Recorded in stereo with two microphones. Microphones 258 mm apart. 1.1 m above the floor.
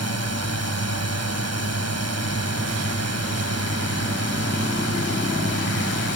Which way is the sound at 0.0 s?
75° right (ahead or behind).